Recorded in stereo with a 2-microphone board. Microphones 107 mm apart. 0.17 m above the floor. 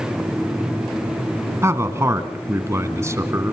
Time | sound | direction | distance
1.6 | a man speaking | 25° right (ahead or behind) | 1.6 m